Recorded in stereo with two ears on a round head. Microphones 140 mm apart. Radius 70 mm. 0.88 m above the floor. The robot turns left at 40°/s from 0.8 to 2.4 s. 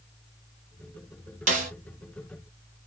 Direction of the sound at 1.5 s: 50° right (ahead or behind).